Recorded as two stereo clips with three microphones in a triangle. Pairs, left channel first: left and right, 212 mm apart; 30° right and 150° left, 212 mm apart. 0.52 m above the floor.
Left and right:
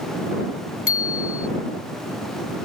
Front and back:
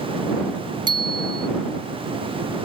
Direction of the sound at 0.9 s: 80° left.